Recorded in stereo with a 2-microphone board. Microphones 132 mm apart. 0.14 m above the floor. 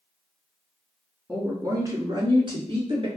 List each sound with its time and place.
1.3 s a woman speaking: 15° right (ahead or behind), 1.1 m; by 3.1 s 45° right (ahead or behind), 1.6 m